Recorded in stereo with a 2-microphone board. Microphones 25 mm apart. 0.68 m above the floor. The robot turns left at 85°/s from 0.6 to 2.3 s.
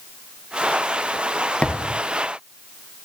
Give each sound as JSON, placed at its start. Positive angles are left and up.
{"t": 1.6, "sound": "a thud", "side_deg": 55, "distance_m": 1.5}